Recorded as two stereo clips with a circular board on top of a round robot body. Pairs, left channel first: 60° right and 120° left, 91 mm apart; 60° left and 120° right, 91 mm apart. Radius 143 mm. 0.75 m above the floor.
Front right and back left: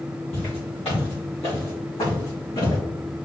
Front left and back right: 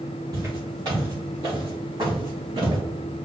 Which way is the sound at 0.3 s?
70° right.